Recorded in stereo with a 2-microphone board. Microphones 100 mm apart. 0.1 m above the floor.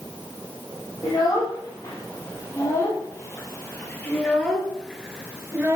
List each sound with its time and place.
1.0 s a child speaking: 35° left (ahead or behind), 3 m; by 5.8 s 25° right (ahead or behind), 0.9 m